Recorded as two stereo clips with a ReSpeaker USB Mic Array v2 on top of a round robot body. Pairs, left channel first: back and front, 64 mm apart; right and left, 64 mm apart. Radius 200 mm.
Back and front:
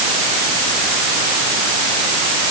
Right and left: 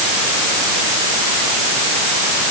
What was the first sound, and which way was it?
Only background noise.